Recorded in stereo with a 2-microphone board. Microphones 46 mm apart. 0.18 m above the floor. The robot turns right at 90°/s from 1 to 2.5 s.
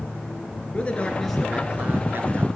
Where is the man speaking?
150° left, 2.5 m; by 2.5 s 80° right, 2.5 m.